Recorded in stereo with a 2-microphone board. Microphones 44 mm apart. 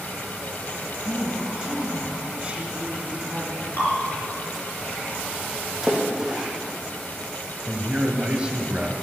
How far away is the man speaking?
About 1.6 m.